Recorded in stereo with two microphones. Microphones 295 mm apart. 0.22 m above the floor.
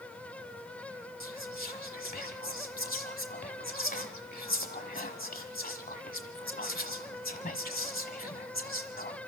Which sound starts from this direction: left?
Whispering, at 1.2 s.